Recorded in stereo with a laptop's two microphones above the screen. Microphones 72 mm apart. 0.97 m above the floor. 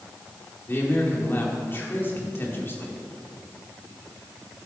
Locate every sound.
0.7 s a man speaking: 30° left (ahead or behind), 2.5 m